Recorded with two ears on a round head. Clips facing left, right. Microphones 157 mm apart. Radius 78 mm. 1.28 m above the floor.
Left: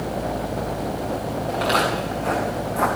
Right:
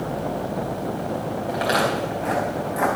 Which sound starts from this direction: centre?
Footsteps, at 1.5 s.